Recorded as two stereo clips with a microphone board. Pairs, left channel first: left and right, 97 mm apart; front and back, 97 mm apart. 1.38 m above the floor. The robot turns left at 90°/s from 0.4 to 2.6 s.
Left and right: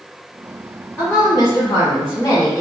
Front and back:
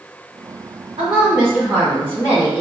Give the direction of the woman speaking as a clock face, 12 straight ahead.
7 o'clock.